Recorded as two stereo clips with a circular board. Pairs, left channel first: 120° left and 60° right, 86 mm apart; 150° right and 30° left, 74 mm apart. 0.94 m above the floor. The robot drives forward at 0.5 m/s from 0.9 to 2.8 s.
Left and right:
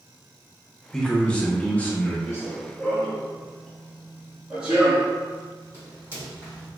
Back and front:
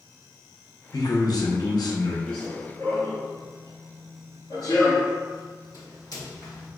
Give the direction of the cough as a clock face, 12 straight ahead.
No cough in this recording.